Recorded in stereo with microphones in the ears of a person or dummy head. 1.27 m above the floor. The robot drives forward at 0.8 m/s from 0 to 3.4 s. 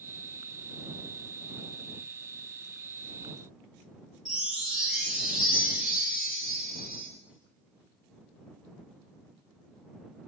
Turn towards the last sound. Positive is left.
turn(degrees=0)  # may be behind; listen again after turning